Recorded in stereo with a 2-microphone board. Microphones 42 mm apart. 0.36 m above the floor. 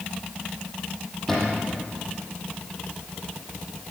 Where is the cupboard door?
5° left (ahead or behind), 8 m.